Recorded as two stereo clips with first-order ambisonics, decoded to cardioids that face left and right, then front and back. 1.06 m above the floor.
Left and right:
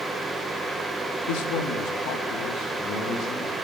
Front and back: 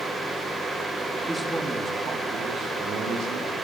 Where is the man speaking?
95° left, 1.4 m; by 3.5 s 140° left, 2.5 m.